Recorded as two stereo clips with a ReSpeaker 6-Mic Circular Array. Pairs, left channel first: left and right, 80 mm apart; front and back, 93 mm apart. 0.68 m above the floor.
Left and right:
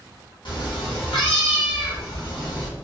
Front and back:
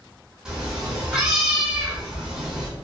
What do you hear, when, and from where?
0.5 s a cat meowing: 95° left, 0.8 m